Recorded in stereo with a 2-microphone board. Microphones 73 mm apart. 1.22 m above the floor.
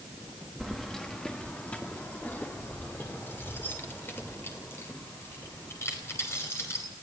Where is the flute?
I don't hear a flute.